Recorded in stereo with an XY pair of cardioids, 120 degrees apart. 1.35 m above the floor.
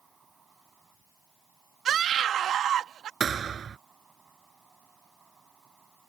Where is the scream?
55° right.